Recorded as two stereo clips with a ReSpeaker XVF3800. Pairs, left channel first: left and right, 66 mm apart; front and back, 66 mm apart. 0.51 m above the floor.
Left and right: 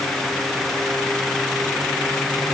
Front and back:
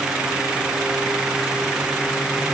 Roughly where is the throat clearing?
No throat clearing in this recording.